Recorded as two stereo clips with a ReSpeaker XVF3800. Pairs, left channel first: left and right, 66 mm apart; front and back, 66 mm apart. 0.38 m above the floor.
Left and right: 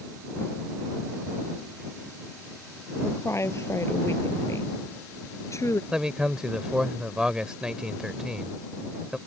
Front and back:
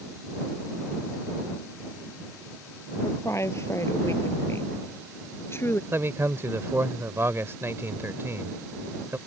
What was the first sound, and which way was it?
A woman speaking, 45° left.